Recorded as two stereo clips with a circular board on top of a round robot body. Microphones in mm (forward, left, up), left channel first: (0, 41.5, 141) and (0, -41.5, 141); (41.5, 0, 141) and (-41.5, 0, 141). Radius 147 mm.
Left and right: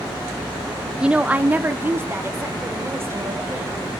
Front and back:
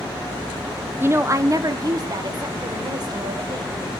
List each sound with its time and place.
1.0 s a woman speaking: 160° right, 0.8 m; by 3.8 s 150° right, 2.5 m